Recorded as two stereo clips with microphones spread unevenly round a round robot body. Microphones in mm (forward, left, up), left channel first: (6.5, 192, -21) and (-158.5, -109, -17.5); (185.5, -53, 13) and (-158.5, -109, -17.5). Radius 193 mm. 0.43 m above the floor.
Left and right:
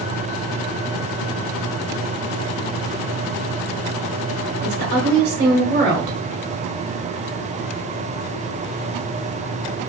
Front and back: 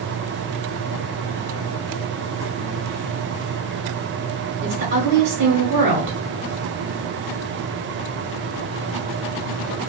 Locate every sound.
4.6 s a woman speaking: 145° right, 1.2 m